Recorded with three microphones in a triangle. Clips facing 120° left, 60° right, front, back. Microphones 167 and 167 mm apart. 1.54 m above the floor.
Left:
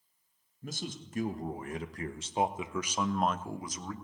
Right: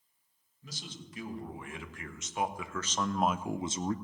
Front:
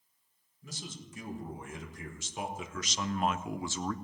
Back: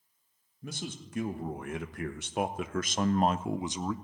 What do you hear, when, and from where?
0.6 s a man speaking: 155° left, 1.6 m; by 4.0 s 100° right, 0.6 m